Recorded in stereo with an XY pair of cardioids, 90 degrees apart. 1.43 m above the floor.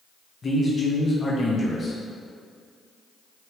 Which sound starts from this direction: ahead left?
A man speaking, at 0.4 s.